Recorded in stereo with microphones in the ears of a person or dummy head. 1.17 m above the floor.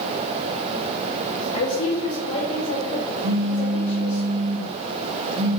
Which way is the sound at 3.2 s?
65° right (ahead or behind).